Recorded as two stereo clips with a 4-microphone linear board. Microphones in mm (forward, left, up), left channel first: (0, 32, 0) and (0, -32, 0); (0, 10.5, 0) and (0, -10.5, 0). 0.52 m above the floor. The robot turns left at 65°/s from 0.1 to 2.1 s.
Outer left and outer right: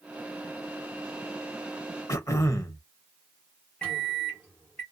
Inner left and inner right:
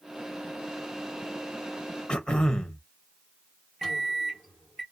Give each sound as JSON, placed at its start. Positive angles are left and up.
{"t": 2.1, "sound": "throat clearing", "side_deg": 55, "distance_m": 0.6}
{"t": 3.8, "sound": "a microwave", "side_deg": 15, "distance_m": 1.3}